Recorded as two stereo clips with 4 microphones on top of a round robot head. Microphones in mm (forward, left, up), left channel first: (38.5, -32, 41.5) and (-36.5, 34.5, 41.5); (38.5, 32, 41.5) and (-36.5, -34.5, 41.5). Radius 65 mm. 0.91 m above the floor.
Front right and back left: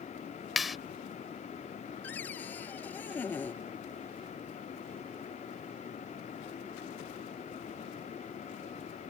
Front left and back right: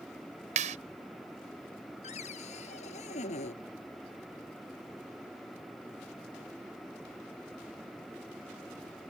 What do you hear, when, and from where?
0.6 s a clap: 135° right
2.0 s a cupboard door: 30° left